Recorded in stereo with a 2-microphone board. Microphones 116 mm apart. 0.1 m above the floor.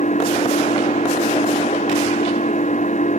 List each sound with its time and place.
0.0 s an engine running: 85° left